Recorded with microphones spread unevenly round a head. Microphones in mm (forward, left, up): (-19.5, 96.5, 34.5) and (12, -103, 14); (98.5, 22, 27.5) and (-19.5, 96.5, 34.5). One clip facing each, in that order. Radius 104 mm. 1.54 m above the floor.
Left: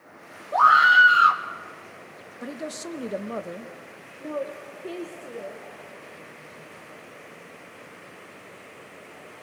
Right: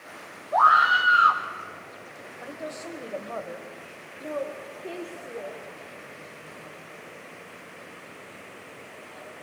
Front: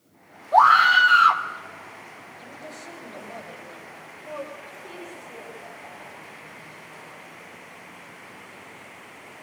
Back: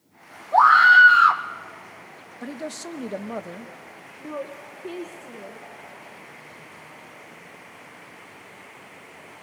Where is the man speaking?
150° left, 1.1 m.